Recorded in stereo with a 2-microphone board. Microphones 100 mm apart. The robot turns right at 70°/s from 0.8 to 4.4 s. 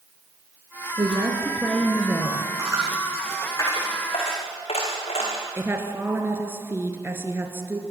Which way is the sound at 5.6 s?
25° right (ahead or behind).